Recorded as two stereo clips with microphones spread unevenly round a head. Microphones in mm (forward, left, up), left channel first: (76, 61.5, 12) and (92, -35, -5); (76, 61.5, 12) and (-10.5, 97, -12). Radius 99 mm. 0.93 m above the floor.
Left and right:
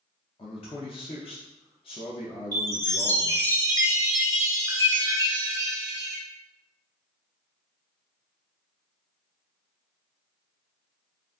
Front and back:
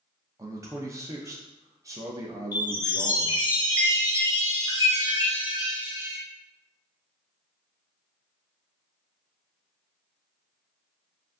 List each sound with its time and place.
0.4 s a man speaking: 130° left, 0.6 m
2.5 s a chime: 130° right, 0.9 m